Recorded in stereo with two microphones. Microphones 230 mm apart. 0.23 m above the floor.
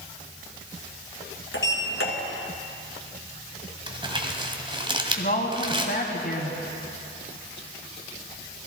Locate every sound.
1.5 s a sliding door: 65° left (ahead or behind), 1.9 m
3.9 s crumpling: 25° right (ahead or behind), 1.4 m
5.2 s a woman speaking: 45° left (ahead or behind), 2.0 m